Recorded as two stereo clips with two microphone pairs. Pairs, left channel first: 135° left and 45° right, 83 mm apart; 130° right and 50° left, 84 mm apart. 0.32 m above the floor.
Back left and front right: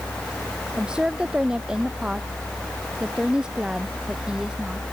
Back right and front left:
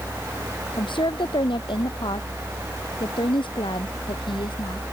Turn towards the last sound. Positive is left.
turn(degrees=-125)